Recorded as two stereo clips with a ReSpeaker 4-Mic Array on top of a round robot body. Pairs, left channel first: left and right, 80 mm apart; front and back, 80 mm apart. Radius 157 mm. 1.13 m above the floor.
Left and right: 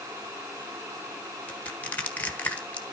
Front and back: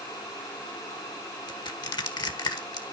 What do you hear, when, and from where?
1.5 s crushing: 20° left, 1.6 m